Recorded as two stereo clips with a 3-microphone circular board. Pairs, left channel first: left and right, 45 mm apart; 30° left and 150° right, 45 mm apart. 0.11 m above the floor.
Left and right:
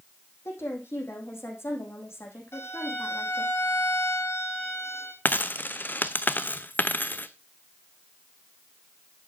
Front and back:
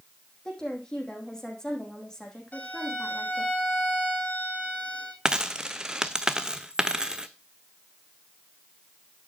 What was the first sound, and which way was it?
A woman speaking, 105° left.